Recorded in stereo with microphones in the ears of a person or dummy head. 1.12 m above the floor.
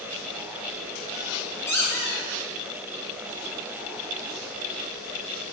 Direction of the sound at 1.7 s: 15° left (ahead or behind).